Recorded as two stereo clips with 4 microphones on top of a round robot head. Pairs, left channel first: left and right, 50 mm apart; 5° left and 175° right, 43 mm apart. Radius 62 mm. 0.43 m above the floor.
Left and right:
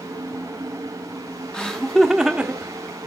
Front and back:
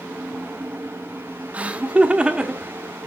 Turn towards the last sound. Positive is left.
turn(degrees=-110)